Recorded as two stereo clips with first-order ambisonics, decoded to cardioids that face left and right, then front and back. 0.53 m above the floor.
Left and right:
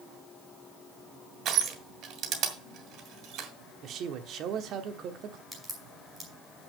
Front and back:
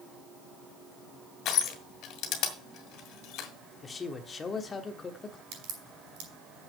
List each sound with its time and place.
1.4 s crushing: 45° right, 2 m
3.8 s a man speaking: 65° right, 1.1 m
5.5 s a crack: straight behind, 5.5 m